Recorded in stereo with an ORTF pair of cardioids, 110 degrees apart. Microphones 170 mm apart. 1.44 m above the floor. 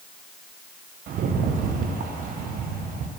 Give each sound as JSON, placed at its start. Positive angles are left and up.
{"t": 1.1, "sound": "a rattle", "azimuth_deg": -55, "distance_m": 0.7}